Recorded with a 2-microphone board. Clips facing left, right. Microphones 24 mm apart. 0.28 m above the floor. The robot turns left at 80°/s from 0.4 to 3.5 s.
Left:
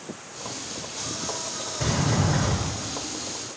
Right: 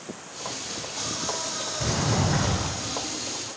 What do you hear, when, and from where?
1.8 s a sliding door: 20° left, 1.7 m; by 2.8 s 65° right, 1.7 m